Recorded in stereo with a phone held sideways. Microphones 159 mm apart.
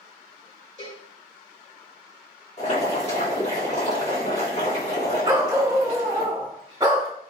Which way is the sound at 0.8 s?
50° left (ahead or behind).